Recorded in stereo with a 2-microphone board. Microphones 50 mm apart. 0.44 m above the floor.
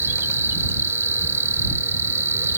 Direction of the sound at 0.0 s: 60° right (ahead or behind).